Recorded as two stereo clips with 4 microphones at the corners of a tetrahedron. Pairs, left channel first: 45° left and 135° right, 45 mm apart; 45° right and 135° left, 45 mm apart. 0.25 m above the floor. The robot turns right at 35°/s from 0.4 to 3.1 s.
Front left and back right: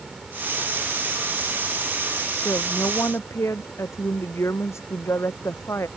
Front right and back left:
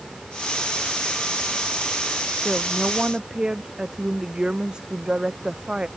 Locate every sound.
2.4 s a woman speaking: 40° left; by 5.9 s 60° left